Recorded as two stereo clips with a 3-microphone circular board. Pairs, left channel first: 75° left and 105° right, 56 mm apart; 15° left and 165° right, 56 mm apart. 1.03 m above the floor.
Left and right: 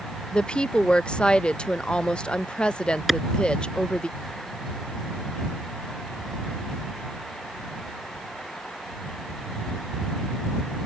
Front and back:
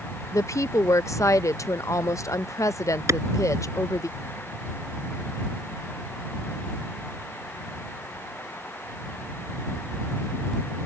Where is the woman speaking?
Straight ahead.